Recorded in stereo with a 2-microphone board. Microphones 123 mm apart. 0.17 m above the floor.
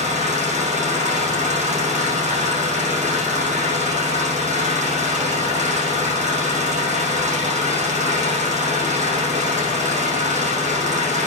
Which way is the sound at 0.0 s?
75° right (ahead or behind).